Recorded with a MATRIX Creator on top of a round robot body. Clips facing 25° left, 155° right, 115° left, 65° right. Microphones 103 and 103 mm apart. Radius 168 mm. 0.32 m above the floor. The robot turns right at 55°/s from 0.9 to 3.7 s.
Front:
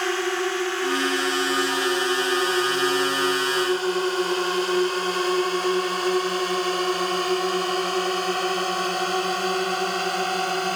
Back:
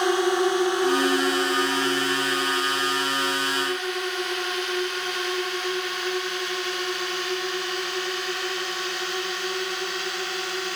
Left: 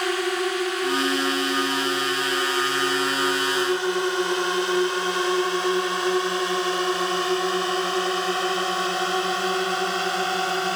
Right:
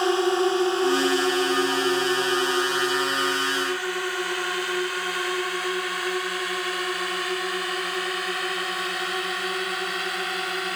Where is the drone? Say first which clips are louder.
Back 4 dB, right 4 dB; 100° right; by 10.8 s 60° left.